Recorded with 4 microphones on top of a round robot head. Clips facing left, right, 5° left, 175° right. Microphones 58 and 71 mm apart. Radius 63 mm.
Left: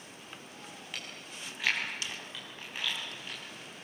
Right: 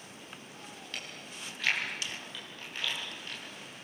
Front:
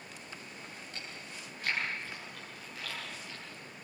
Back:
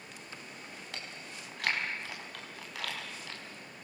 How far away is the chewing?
About 5 m.